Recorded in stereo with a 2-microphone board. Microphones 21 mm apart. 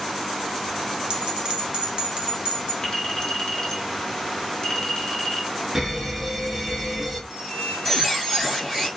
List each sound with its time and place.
1.1 s a bell: 45° right (ahead or behind), 0.8 m
2.8 s a clink: 45° left (ahead or behind), 0.9 m
5.8 s an alarm: 15° right (ahead or behind), 1.1 m
7.3 s a squeak: 5° left (ahead or behind), 1.7 m